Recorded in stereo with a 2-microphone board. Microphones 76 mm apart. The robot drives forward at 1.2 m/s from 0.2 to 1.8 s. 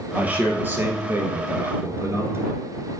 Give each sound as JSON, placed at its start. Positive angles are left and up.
{"t": 0.1, "sound": "a man speaking", "side_deg": -20, "distance_m": 2.0}